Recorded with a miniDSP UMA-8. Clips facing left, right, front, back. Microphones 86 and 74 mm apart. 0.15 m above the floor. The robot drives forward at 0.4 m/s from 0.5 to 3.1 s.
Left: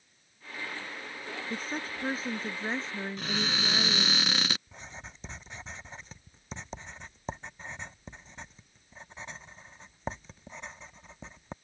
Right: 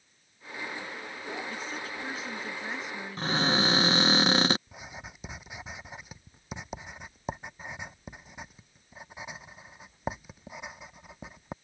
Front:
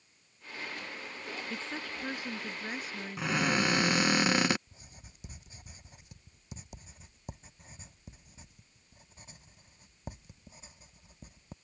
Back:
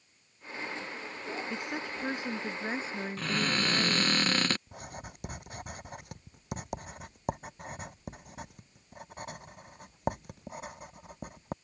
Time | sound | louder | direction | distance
1.5 | a woman speaking | left 1 dB, back 3 dB | 110° left | ?
3.2 | a cupboard door | right 8 dB, front 3 dB | 70° right | ?
4.7 | writing | right 2 dB, back 14 dB | 170° right | ?